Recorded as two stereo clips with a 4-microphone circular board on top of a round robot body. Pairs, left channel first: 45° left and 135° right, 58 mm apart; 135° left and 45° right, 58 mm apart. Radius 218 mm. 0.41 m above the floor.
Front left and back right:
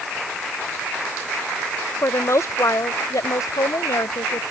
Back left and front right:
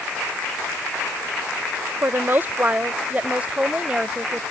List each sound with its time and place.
2.0 s a woman speaking: 5° left; by 4.4 s 30° left